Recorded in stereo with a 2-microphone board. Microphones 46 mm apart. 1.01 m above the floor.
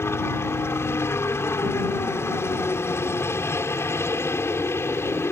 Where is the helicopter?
60° left (ahead or behind).